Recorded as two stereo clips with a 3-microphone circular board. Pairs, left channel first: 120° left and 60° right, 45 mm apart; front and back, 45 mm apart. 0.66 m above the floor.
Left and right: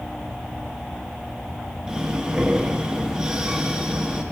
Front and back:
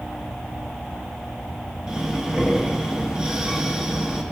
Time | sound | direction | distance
1.9 | breathing | 125° right | 1.0 m